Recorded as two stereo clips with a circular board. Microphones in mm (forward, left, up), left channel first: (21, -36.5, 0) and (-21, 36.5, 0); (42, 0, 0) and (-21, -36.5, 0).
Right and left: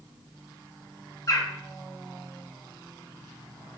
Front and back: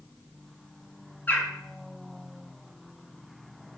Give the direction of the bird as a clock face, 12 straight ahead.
1 o'clock.